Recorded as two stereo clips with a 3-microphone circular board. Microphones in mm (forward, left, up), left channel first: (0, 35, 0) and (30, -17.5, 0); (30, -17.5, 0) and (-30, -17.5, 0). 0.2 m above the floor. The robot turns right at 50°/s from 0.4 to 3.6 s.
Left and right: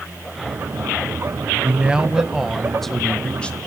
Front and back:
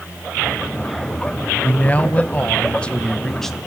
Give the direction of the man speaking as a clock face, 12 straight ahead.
1 o'clock.